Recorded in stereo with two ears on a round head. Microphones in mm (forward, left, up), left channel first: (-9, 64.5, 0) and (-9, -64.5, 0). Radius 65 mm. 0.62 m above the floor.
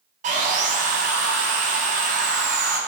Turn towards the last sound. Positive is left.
turn(degrees=-55)  # may be behind; listen again after turning